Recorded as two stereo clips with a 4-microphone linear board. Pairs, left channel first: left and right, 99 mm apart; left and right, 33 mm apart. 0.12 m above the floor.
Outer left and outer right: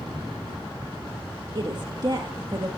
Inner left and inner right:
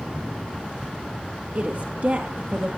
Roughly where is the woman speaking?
Right.